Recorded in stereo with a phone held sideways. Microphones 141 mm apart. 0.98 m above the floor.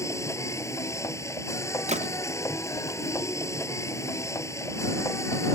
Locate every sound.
0.0 s a machine running: 20° left (ahead or behind)
1.9 s a gunshot: 55° right (ahead or behind)